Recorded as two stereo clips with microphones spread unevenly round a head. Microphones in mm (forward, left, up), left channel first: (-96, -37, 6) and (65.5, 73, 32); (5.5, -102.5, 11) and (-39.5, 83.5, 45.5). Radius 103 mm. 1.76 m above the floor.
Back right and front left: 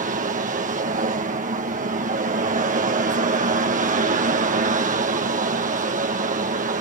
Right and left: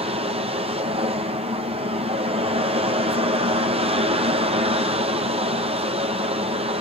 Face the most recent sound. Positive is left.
turn(degrees=50)